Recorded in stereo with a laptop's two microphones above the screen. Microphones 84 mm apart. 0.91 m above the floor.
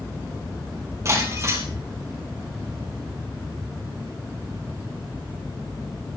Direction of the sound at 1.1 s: 40° right (ahead or behind).